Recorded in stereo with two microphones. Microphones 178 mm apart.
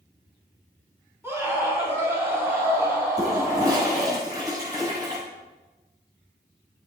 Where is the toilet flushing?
20° right (ahead or behind), 5 m.